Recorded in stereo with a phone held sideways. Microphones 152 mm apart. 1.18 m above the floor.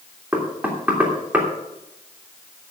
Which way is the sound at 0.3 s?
10° right (ahead or behind).